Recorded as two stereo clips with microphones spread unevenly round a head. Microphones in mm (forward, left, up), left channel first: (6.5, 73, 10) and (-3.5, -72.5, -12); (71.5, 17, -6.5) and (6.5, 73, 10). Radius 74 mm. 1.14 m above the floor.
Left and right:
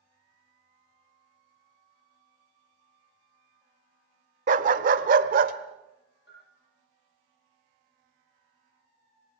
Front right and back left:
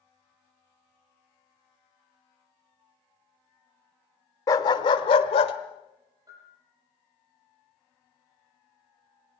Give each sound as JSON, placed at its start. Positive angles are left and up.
{"t": 4.5, "sound": "a dog barking", "azimuth_deg": -95, "distance_m": 0.9}
{"t": 6.3, "sound": "a bell", "azimuth_deg": 95, "distance_m": 7.5}